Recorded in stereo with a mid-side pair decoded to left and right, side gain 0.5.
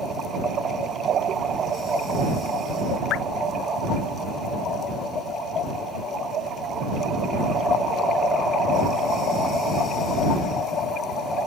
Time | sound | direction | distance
3.1 | dripping | 65° left | ?